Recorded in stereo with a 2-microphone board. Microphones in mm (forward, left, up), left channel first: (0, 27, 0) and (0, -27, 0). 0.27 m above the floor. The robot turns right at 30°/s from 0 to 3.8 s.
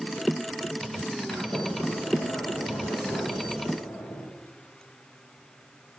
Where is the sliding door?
5° left, 7 m; by 4.2 s 80° left, 7 m.